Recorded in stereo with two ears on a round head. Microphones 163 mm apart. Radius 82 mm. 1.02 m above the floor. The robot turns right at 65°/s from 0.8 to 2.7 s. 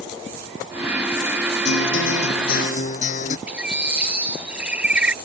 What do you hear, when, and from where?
1.6 s a guitar: 65° left; by 3.4 s 130° left
3.5 s a bird: 5° right (ahead or behind)